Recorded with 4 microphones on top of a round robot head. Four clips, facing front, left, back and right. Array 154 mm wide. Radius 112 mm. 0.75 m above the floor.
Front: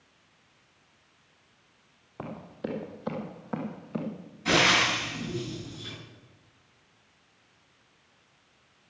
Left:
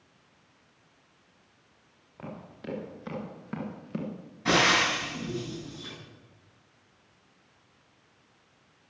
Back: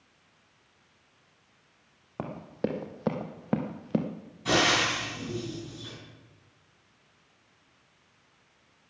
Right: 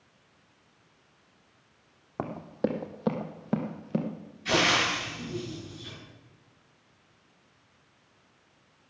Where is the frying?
100° left, 9 m.